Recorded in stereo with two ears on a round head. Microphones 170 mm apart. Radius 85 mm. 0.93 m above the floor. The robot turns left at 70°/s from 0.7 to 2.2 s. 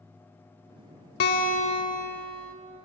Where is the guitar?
75° left, 1.0 m; by 2.5 s 5° left, 1.0 m.